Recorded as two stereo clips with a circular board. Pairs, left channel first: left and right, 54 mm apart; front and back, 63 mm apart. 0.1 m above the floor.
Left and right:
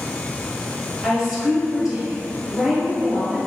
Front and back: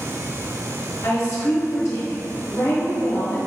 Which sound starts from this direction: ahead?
A woman speaking, at 1.0 s.